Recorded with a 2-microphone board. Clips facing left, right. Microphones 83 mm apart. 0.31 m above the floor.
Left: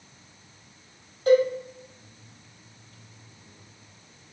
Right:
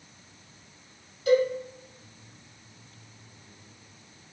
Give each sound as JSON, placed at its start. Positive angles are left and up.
{"t": 1.3, "sound": "a cowbell", "side_deg": 45, "distance_m": 1.6}